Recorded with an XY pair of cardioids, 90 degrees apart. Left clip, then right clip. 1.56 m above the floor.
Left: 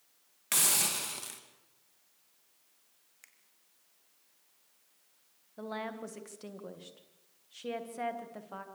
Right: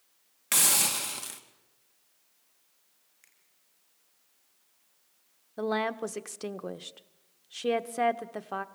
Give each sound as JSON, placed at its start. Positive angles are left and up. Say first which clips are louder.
{"t": 0.5, "sound": "a hiss", "louder": "right 4 dB", "azimuth_deg": -25, "distance_m": 2.5}
{"t": 3.2, "sound": "a finger snap", "louder": "left 4 dB", "azimuth_deg": 35, "distance_m": 4.0}
{"t": 5.6, "sound": "a woman speaking", "louder": "right 10 dB", "azimuth_deg": -65, "distance_m": 1.2}